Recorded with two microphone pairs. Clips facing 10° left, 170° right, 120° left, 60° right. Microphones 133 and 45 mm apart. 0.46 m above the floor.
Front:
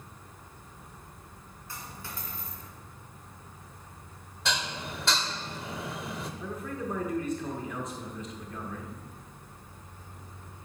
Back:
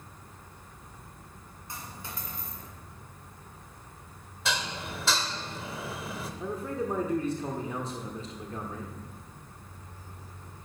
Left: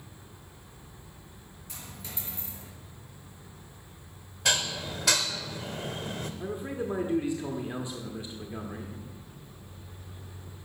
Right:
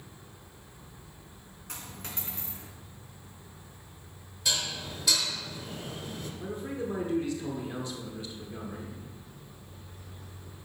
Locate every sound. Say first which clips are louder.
1.7 s a dropped coin: back 1 dB, right 2 dB; 100° right, 2 m
4.5 s dishes clattering: even, left 4 dB; 100° left, 0.8 m
6.4 s a man speaking: back 6 dB, even; 165° left, 1.0 m